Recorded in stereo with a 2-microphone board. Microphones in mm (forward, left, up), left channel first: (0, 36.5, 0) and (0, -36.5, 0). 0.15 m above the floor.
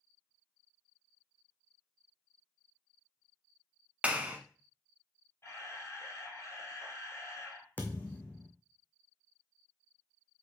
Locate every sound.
4.0 s a clap: 15° right (ahead or behind), 0.9 m
5.4 s a camera shutter: 40° left (ahead or behind), 2.0 m
7.8 s a thud: 25° left (ahead or behind), 1.7 m